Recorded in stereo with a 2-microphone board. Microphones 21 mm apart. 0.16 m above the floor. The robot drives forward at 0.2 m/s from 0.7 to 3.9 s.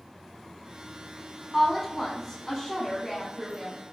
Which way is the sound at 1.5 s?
10° left (ahead or behind).